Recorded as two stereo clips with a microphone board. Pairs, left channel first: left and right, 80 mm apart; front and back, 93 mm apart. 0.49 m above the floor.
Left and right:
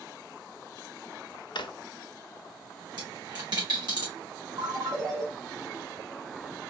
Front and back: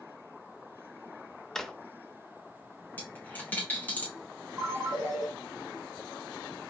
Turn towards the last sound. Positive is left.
turn(degrees=-115)